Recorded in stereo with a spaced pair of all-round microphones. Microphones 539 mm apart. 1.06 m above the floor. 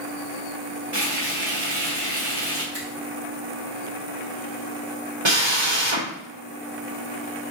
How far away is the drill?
About 1.7 m.